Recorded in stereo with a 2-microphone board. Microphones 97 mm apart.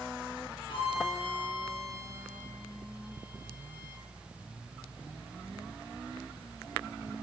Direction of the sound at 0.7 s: 65° left (ahead or behind).